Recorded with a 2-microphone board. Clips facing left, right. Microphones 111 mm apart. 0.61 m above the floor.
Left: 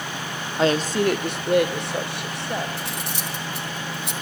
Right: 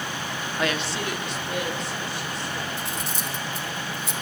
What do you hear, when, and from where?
0.6 s a woman speaking: 25° left (ahead or behind), 0.8 m; by 2.7 s 65° left (ahead or behind), 3.5 m
2.8 s cutlery clinking: 65° left (ahead or behind), 1.5 m